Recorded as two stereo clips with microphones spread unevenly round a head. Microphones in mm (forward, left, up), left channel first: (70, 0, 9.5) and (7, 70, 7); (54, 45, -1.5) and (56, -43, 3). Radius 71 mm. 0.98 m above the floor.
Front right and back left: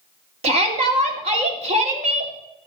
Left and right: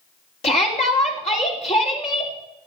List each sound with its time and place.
0.4 s a shout: 130° left, 2.5 m